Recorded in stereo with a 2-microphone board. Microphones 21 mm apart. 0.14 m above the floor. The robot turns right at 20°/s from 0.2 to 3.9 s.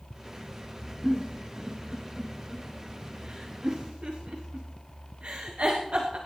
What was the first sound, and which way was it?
A giggle, 15° right (ahead or behind).